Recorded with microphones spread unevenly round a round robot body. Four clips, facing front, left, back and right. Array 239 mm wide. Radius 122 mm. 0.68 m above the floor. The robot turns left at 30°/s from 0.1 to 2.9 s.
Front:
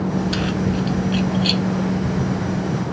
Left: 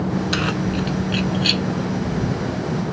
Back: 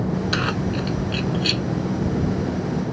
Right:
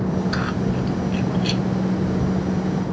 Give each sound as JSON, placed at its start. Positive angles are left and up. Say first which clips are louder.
{"t": 0.3, "sound": "keys jangling", "louder": "left 1 dB, front 2 dB", "azimuth_deg": 160}